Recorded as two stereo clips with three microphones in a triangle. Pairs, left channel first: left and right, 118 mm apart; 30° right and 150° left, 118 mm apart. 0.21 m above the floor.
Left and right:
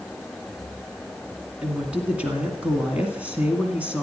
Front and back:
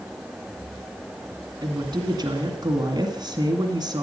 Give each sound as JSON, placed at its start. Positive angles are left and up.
{"t": 1.6, "sound": "a woman speaking", "azimuth_deg": -165, "distance_m": 2.0}